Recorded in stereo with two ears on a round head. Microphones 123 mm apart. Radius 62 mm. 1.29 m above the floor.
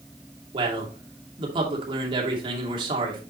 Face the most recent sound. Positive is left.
turn(degrees=-35)  # may be behind; listen again after turning